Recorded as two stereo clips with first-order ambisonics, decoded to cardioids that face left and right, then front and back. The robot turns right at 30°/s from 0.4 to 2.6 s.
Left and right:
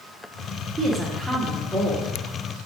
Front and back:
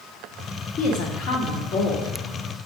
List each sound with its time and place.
0.8 s a woman speaking: 20° right, 1.8 m; by 2.1 s 20° left, 1.8 m